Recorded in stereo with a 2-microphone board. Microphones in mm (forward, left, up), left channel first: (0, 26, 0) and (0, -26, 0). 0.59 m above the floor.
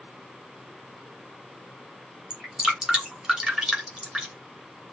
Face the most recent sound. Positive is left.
turn(degrees=-15)  # may be behind; listen again after turning